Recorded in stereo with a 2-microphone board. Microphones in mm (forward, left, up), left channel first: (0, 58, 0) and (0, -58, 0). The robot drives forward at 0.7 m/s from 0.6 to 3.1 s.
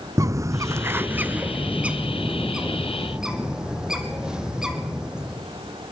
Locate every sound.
0.2 s a bird: 30° right (ahead or behind), 0.5 m; by 5.4 s 5° right (ahead or behind), 2 m